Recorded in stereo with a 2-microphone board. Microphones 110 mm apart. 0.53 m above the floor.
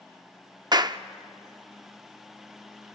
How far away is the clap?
About 0.6 m.